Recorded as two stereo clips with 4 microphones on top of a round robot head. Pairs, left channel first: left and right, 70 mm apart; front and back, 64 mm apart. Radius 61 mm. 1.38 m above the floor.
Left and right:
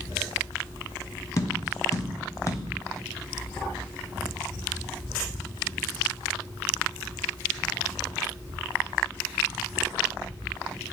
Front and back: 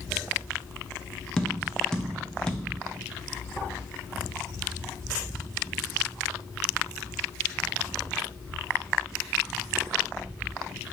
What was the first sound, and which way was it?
Tapping, 75° left.